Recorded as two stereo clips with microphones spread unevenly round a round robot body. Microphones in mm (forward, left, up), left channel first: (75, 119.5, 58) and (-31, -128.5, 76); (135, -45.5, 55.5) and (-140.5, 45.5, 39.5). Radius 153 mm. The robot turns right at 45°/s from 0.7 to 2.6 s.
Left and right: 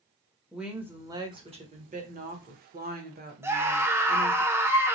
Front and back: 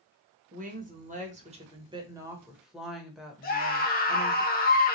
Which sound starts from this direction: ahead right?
A scream, at 3.4 s.